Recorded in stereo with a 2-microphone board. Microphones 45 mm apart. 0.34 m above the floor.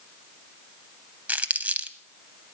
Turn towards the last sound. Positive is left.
turn(degrees=-35)  # may be behind; listen again after turning